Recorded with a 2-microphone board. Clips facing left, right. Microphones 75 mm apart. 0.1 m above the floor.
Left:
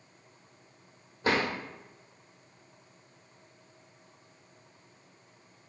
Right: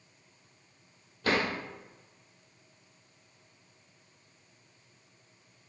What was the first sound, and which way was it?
A drawer, 25° left (ahead or behind).